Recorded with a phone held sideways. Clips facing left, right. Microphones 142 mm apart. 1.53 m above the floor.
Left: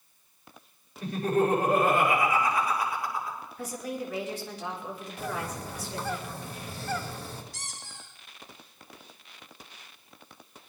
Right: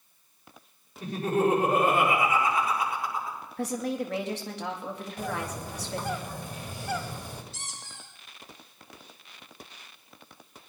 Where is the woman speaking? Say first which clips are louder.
Right 6 dB; 70° right (ahead or behind), 2.5 m.